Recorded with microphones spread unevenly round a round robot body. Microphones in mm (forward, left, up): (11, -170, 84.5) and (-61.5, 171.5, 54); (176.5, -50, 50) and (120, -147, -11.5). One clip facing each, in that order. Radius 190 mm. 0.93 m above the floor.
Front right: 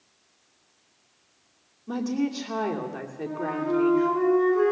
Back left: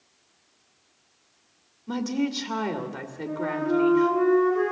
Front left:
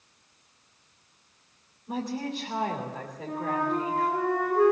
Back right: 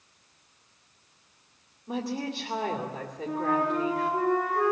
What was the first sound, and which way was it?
A woman speaking, straight behind.